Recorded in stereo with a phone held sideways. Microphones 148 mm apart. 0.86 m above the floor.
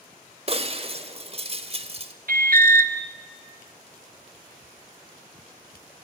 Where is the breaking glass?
40° right (ahead or behind), 1.4 m.